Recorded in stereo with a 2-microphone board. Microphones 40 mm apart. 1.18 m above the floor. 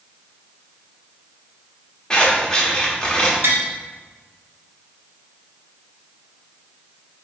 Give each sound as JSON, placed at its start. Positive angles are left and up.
{"t": 2.1, "sound": "scissors", "side_deg": 25, "distance_m": 0.9}
{"t": 3.4, "sound": "tapping", "side_deg": -70, "distance_m": 0.7}